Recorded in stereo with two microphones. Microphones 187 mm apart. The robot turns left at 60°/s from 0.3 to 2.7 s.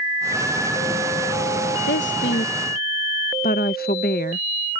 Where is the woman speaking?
70° left (ahead or behind); by 4.5 s 55° left (ahead or behind).